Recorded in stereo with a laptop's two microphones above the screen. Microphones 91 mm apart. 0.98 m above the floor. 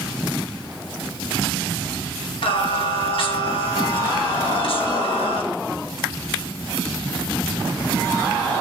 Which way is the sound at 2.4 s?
70° left (ahead or behind).